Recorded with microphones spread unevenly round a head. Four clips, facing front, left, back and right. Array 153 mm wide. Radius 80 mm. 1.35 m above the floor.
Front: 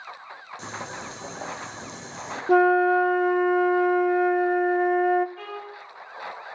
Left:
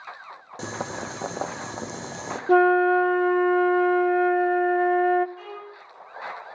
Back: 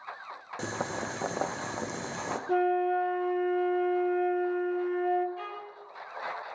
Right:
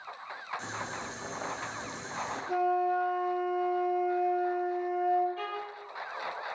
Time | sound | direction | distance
0.6 | boiling | 125° left | 1.0 m
2.5 | a flute | 55° left | 0.6 m
5.4 | a violin | 65° right | 10 m